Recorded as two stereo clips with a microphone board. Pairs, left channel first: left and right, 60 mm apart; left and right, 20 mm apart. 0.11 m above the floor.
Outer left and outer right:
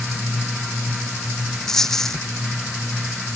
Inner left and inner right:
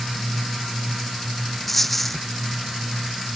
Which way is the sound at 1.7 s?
10° left (ahead or behind).